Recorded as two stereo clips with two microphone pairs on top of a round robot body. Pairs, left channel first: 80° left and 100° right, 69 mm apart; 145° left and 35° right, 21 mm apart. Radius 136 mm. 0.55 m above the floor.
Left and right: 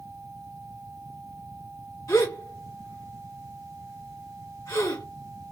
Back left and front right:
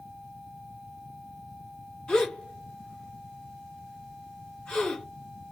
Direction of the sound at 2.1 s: 115° left.